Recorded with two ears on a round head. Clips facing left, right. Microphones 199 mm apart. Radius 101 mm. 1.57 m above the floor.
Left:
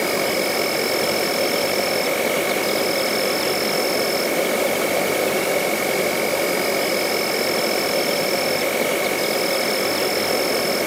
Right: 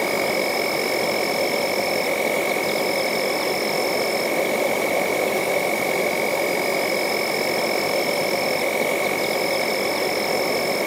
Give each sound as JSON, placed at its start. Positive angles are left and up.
{"t": 0.0, "sound": "an insect", "side_deg": 10}